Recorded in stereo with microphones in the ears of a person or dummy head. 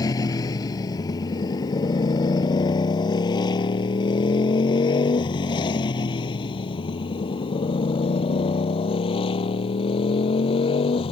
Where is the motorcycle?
20° left (ahead or behind); by 11.1 s 30° left (ahead or behind).